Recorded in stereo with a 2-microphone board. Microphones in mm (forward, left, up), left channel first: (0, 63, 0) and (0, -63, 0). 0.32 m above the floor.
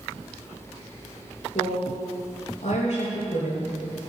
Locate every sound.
1.6 s a woman speaking: 70° left (ahead or behind), 4.5 m